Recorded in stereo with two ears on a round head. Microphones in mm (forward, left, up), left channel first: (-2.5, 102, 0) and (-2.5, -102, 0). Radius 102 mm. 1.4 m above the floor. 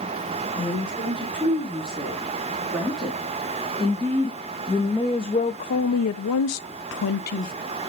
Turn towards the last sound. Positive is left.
turn(degrees=35)  # may be behind; listen again after turning